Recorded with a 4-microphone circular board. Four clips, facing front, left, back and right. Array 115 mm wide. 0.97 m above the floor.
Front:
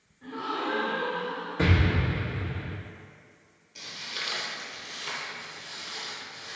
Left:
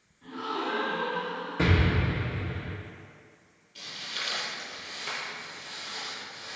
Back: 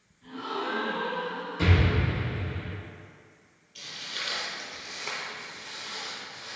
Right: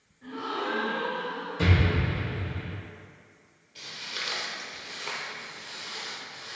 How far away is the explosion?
About 0.7 m.